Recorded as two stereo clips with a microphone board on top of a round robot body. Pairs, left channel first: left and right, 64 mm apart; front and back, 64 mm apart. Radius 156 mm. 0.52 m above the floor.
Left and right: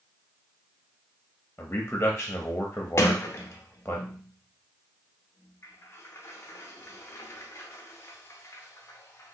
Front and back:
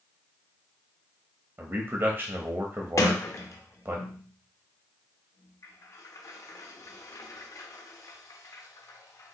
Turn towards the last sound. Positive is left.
turn(degrees=40)